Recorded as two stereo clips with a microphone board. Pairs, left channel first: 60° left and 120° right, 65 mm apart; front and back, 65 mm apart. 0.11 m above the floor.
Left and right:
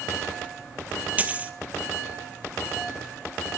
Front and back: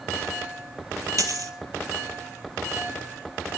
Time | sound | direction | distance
1.2 | a dropped coin | 175° left | 1.2 m